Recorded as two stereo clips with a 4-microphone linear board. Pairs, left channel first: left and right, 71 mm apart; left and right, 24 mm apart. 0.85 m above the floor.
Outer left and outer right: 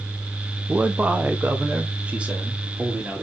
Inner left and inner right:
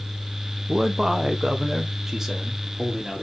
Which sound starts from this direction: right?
A man speaking, at 0.7 s.